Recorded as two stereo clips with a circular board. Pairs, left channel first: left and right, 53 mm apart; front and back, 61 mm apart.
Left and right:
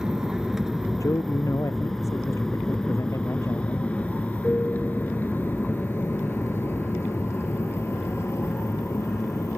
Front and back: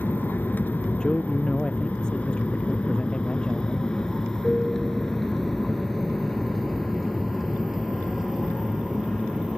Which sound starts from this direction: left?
A man speaking, at 1.0 s.